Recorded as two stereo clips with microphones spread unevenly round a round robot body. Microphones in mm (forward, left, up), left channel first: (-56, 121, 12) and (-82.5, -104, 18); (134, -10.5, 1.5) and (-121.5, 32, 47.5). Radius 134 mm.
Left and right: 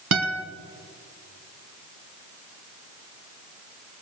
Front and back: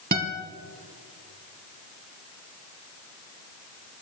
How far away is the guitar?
About 1.6 m.